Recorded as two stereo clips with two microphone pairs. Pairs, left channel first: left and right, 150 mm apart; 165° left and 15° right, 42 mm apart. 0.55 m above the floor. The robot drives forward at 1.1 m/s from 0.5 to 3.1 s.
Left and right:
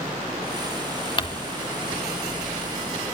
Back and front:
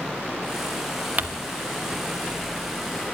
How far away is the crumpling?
About 1.3 m.